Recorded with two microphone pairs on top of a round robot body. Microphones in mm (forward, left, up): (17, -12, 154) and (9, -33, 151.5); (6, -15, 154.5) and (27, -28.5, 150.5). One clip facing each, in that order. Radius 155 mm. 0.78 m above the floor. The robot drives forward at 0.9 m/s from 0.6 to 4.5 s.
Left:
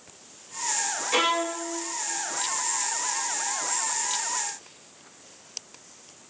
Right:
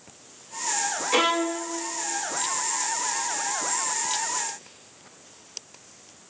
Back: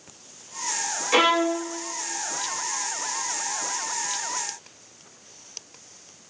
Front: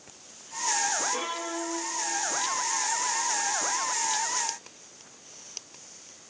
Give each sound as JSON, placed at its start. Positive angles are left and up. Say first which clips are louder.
{"t": 1.1, "sound": "a violin", "louder": "right 1 dB, back 12 dB", "azimuth_deg": 165, "distance_m": 1.6}